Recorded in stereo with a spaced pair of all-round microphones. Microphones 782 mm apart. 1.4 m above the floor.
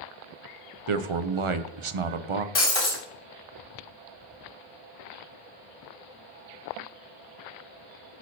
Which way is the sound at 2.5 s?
45° left (ahead or behind).